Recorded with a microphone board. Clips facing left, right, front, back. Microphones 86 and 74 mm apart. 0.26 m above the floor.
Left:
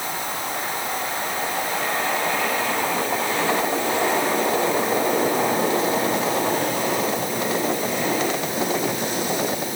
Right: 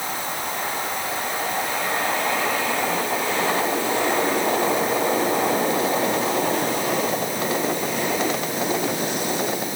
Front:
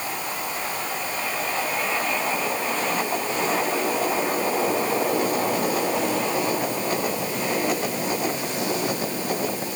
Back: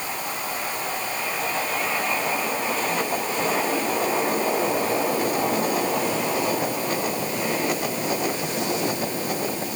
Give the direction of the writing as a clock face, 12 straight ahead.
No writing in this recording.